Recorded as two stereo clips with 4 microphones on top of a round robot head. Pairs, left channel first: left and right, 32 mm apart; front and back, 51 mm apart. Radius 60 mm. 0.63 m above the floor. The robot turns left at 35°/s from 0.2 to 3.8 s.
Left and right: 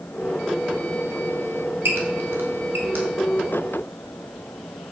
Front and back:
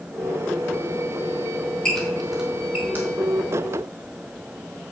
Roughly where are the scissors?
No scissors in this recording.